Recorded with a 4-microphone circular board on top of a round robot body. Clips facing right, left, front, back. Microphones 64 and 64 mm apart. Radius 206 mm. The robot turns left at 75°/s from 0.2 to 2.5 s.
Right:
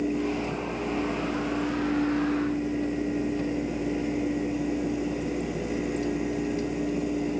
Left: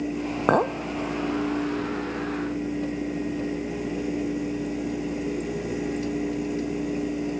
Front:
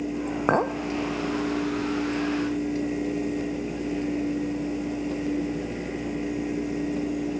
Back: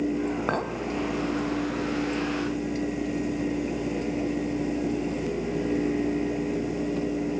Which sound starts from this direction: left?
A clink, at 0.5 s.